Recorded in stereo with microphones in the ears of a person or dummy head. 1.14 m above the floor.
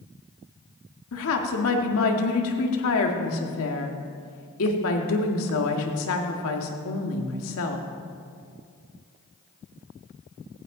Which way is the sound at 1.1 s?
75° left (ahead or behind).